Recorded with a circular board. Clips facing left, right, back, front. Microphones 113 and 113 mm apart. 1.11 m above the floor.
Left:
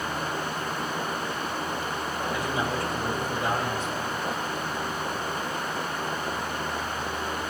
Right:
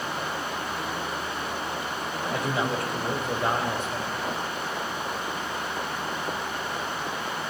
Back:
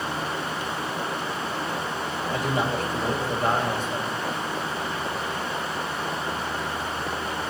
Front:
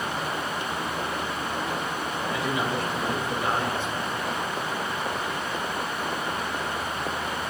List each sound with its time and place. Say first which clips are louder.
2.3 s a man speaking: right 2 dB, back 3 dB; 130° right, 5.5 m